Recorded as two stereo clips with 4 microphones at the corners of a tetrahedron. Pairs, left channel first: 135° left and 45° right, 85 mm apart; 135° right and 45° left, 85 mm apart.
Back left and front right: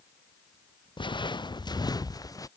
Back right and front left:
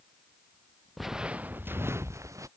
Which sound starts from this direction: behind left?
Footsteps, at 1.0 s.